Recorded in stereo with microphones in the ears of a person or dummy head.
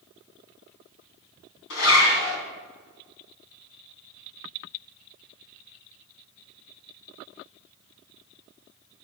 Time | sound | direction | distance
1.7 | a zipper | 80° left | 3.5 m